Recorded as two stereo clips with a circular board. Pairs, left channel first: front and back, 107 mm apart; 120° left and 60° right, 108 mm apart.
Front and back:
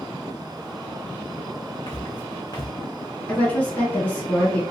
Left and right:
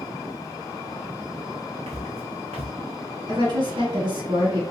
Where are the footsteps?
50° right, 0.9 m.